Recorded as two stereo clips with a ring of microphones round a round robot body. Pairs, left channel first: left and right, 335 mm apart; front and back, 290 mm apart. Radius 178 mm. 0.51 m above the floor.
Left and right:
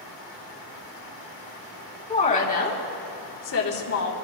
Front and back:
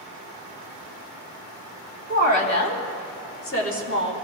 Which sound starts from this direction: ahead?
A woman speaking, at 2.1 s.